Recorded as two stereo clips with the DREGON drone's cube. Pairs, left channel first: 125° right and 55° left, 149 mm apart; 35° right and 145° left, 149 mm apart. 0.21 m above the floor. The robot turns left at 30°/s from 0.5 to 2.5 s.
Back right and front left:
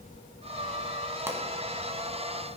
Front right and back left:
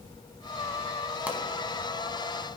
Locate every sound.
1.3 s a pop: 85° left, 1.1 m